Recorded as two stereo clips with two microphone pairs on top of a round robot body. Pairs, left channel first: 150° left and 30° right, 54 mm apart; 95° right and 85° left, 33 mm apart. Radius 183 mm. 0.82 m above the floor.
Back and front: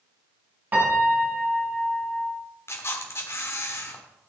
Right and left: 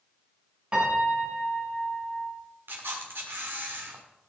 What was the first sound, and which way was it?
A piano, 25° left.